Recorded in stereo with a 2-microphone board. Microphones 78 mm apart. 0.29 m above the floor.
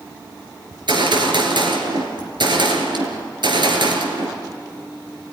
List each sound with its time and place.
0.7 s a gunshot: 70° right (ahead or behind), 3.5 m